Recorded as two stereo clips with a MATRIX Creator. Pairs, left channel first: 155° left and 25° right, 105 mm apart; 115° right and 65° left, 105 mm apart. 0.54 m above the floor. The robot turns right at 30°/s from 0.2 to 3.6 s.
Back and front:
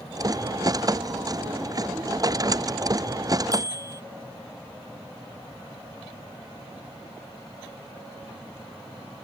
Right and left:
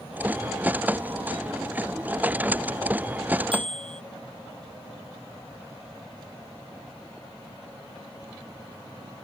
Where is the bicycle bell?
35° left.